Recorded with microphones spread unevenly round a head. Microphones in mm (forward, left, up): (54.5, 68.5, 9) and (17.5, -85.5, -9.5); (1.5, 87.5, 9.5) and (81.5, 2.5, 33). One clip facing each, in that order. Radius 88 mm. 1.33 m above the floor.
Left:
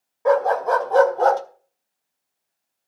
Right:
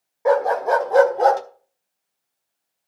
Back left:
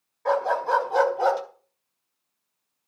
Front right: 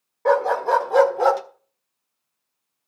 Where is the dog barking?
25° right, 2 m; by 1.4 s 30° right, 1.7 m.